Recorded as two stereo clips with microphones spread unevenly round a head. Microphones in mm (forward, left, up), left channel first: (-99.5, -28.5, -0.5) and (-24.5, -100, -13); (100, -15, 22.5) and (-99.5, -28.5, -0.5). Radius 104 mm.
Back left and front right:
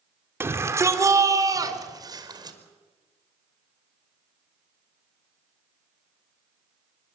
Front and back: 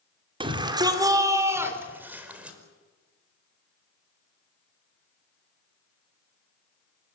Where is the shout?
110° right, 3.5 m; by 2.6 s 90° right, 5.5 m.